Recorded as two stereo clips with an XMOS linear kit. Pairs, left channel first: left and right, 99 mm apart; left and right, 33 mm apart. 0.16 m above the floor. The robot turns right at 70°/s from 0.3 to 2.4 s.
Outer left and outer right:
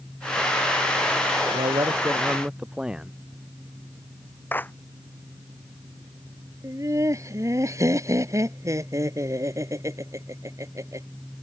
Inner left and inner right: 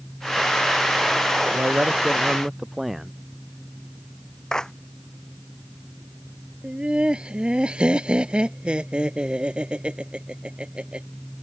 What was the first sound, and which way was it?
A man speaking, 70° right.